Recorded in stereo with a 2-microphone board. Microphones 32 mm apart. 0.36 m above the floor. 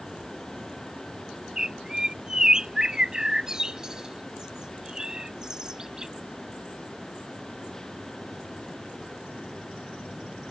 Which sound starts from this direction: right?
A bird, at 1.6 s.